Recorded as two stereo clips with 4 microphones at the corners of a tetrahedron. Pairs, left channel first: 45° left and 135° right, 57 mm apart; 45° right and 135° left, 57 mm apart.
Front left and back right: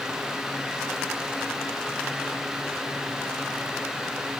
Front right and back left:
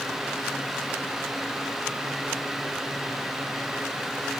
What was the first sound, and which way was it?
Only background noise.